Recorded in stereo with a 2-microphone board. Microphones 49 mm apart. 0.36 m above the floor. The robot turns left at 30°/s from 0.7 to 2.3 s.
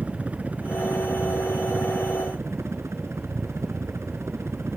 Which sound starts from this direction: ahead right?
A helicopter, at 0.0 s.